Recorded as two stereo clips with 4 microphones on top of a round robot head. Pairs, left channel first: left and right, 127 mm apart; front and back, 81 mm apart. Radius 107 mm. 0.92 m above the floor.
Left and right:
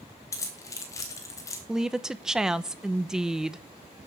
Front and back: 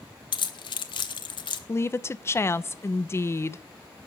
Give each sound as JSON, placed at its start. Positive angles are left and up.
{"t": 0.3, "sound": "keys jangling", "azimuth_deg": 20, "distance_m": 1.1}
{"t": 1.7, "sound": "a woman speaking", "azimuth_deg": -5, "distance_m": 0.7}